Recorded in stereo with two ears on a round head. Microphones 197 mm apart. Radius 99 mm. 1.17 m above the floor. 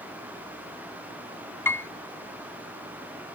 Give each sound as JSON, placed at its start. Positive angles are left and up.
{"t": 1.6, "sound": "a piano", "side_deg": 10}